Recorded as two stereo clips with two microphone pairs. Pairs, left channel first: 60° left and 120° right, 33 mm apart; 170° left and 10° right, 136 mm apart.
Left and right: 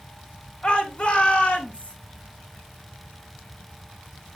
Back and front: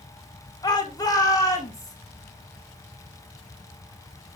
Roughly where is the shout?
Left.